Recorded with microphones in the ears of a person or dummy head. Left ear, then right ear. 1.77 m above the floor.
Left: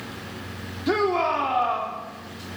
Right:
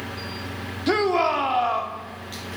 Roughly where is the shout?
Centre.